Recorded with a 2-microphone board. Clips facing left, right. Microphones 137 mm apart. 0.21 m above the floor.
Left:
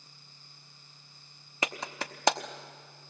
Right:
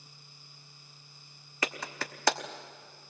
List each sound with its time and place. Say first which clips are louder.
1.6 s a clap: left 1 dB; 20° left (ahead or behind), 0.9 m